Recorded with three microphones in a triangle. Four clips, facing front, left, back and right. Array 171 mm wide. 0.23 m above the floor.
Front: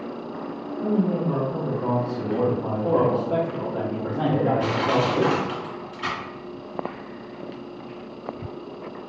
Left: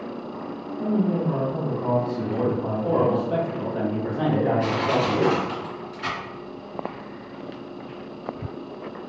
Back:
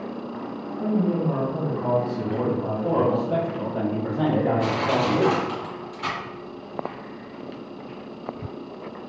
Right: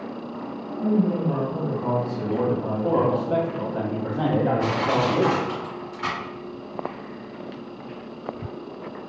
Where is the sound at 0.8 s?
160° left, 1.7 m; by 3.2 s 130° right, 1.4 m.